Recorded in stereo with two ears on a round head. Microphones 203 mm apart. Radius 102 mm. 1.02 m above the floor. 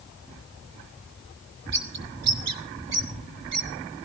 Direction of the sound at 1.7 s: 75° right (ahead or behind).